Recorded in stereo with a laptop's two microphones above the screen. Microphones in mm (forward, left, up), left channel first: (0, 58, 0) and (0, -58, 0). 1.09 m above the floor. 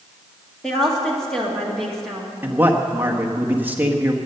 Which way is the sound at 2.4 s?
15° right (ahead or behind).